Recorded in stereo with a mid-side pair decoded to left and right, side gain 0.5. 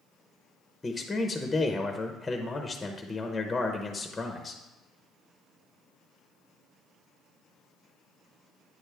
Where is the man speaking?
15° left, 0.8 m.